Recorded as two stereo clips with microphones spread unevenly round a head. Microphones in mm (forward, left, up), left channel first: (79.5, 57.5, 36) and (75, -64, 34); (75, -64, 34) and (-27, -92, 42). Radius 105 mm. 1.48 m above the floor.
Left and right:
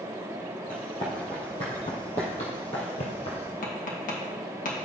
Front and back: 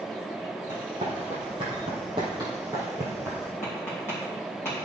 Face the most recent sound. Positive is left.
turn(degrees=90)